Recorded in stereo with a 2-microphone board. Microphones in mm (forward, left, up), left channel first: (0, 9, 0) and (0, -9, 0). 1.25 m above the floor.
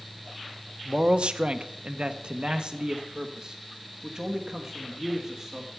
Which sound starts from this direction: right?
A man speaking, at 0.8 s.